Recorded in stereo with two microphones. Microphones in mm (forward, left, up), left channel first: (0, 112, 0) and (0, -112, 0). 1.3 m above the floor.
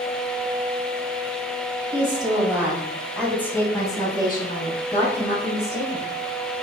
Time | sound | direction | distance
1.9 | a woman speaking | 25° right (ahead or behind) | 3 m